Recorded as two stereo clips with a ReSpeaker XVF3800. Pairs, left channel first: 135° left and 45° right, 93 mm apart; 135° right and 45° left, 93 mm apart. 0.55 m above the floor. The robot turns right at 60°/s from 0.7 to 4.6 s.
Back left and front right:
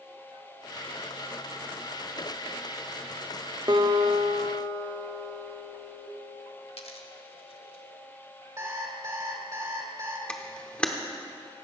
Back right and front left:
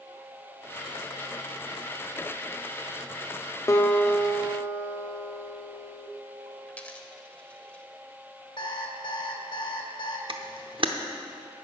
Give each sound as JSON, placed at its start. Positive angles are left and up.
{"t": 3.7, "sound": "a guitar", "azimuth_deg": -80, "distance_m": 0.8}
{"t": 6.7, "sound": "a dropped coin", "azimuth_deg": 150, "distance_m": 0.8}
{"t": 8.6, "sound": "an alarm clock", "azimuth_deg": -100, "distance_m": 1.4}
{"t": 10.3, "sound": "a camera shutter", "azimuth_deg": 55, "distance_m": 0.8}